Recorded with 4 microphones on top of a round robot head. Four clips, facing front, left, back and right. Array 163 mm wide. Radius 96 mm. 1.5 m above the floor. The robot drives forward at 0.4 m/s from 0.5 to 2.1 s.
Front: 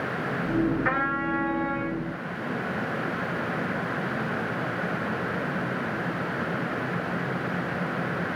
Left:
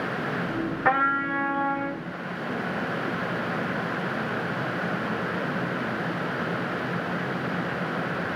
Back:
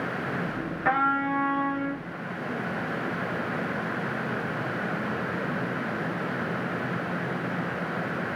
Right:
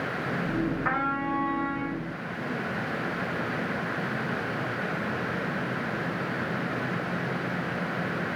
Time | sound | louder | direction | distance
0.8 | a trumpet | left 4 dB, back 2 dB | 105° left | 2.5 m